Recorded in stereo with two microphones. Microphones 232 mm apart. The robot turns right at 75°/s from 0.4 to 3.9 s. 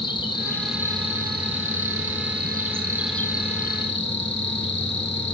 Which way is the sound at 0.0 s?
160° left.